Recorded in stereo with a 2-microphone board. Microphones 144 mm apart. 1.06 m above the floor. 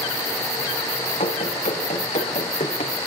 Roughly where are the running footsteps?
Left.